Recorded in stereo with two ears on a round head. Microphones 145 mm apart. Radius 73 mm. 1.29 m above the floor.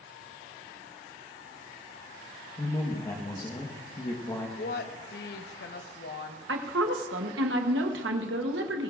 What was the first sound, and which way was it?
A woman speaking, 25° left (ahead or behind).